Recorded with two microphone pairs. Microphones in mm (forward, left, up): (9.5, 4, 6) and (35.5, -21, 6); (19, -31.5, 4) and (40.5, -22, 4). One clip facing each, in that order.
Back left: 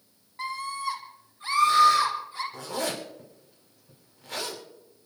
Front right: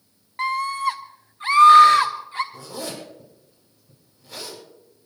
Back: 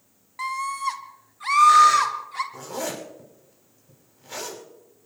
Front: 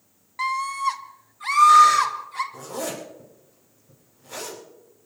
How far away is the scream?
About 1.3 m.